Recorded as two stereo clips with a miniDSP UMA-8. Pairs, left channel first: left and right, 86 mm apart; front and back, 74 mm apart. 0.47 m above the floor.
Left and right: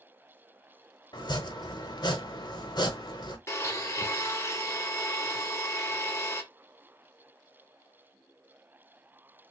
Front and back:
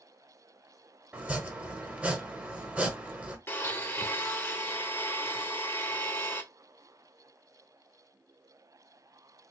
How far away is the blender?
About 0.8 m.